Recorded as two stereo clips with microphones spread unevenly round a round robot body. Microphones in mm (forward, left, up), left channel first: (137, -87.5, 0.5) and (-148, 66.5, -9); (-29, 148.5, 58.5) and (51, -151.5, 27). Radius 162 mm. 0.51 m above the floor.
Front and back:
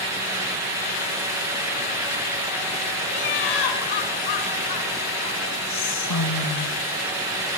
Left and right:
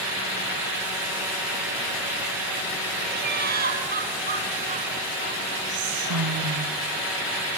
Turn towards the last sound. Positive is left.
turn(degrees=-60)